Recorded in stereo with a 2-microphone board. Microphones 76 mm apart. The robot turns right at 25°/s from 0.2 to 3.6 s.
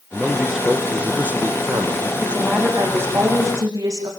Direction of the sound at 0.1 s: Straight behind.